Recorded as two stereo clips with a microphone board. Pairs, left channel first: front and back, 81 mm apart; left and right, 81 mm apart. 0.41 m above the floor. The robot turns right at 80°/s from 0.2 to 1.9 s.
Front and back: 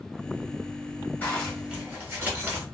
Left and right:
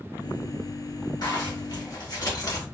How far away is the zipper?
About 1.1 m.